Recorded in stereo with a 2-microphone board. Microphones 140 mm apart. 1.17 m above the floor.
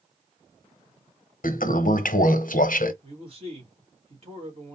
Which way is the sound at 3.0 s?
45° right (ahead or behind).